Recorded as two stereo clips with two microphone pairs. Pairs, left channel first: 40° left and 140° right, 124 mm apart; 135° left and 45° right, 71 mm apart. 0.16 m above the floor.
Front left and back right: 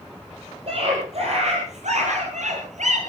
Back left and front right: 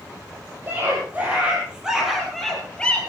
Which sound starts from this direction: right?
A scream, at 0.7 s.